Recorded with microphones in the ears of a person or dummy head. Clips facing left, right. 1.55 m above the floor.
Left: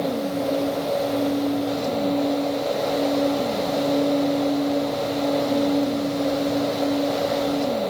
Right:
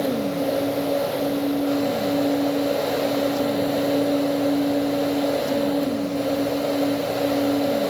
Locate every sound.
Only background noise.